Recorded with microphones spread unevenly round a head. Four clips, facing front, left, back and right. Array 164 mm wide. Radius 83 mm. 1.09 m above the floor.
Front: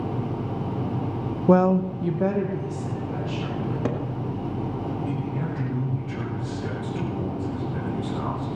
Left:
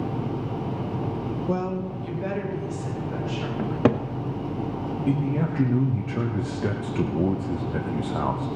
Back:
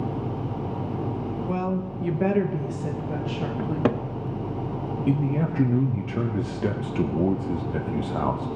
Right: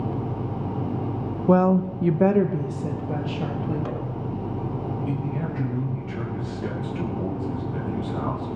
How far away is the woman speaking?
About 0.6 m.